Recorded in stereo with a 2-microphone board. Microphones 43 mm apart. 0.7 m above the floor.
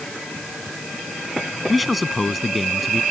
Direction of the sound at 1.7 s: Centre (ahead or behind).